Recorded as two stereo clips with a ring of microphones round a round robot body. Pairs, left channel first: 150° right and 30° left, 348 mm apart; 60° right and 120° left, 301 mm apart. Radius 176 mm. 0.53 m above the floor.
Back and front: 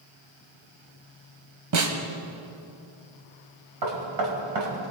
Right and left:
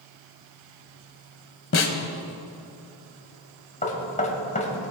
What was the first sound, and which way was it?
A snare drum, 10° right.